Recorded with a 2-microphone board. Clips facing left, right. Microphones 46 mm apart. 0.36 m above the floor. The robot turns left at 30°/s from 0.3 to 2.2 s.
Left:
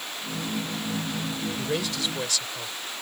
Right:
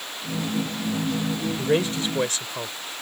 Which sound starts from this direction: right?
A man speaking, at 1.6 s.